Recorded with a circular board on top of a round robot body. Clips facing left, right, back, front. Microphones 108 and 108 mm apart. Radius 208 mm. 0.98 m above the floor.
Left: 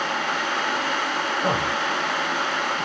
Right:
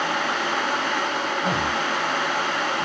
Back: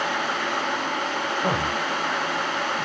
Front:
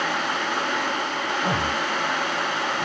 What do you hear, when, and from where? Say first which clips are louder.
1.4 s a man speaking: left 1 dB, even; 135° left, 2 m